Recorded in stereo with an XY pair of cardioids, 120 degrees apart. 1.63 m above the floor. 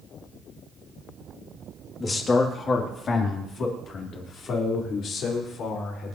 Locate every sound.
2.0 s a man speaking: 30° left, 3.5 m; by 6.2 s 60° left, 7 m